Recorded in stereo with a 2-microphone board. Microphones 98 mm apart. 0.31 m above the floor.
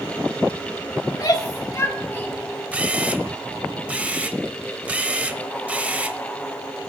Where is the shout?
50° left (ahead or behind), 2 m; by 2.4 s 15° left (ahead or behind), 1.6 m.